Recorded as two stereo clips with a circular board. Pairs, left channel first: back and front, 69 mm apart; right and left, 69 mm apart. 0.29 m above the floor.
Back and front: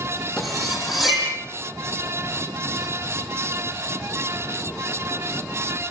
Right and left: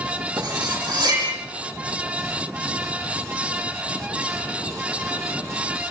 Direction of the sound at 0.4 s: 90° left.